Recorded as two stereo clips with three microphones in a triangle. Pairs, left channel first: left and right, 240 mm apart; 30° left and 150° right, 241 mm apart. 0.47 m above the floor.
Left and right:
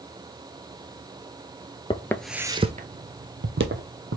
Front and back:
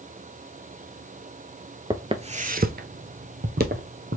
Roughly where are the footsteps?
Behind left.